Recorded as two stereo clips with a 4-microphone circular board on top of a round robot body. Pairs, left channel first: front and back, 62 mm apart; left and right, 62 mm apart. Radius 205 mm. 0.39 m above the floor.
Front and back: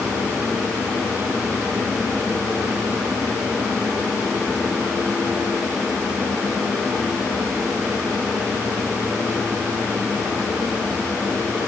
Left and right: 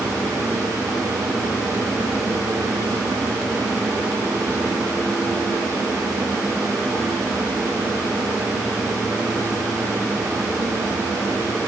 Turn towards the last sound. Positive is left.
No sound to turn to.